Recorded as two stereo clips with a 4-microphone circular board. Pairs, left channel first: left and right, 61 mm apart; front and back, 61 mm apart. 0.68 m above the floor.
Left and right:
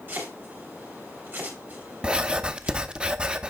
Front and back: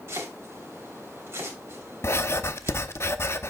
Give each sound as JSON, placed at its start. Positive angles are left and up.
{"t": 0.1, "sound": "chopping", "azimuth_deg": -145, "distance_m": 3.5}
{"t": 2.0, "sound": "writing", "azimuth_deg": -25, "distance_m": 0.6}